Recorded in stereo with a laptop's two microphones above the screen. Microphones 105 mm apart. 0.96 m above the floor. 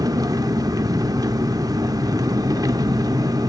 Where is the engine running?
35° right (ahead or behind), 0.7 m.